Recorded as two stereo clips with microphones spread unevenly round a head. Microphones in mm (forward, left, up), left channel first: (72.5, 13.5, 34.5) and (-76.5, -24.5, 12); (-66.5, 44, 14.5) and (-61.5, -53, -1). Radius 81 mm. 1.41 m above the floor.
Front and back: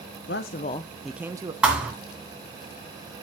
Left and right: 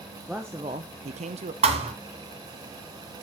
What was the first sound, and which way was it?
A man speaking, 5° left.